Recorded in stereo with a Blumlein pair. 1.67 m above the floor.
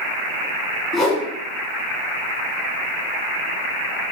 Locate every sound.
0.9 s a whoosh: 20° left, 1.2 m